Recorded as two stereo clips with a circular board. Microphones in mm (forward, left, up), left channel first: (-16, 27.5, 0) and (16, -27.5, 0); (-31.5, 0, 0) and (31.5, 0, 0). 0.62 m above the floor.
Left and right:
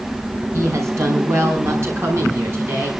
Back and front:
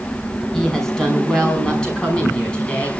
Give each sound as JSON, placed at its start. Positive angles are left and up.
{"t": 0.5, "sound": "a woman speaking", "azimuth_deg": -95, "distance_m": 5.5}